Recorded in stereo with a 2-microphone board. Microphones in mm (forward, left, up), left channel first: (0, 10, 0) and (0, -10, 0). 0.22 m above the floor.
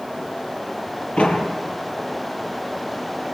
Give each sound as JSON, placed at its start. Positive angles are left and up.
{"t": 1.2, "sound": "a door slam", "side_deg": 65, "distance_m": 5.0}